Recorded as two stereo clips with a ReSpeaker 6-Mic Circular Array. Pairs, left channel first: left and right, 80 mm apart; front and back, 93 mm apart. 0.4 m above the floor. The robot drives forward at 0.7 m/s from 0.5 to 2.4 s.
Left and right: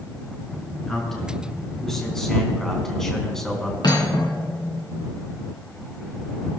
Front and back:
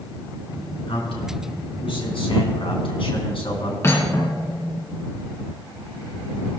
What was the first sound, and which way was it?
A man speaking, 5° left.